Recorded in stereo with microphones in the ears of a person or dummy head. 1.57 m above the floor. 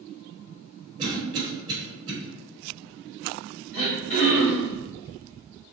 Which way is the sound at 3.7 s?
40° left (ahead or behind).